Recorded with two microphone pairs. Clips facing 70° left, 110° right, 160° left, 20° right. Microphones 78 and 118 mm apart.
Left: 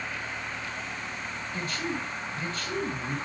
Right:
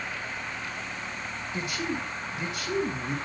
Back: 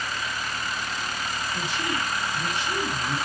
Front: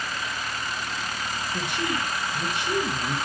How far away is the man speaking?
About 2 m.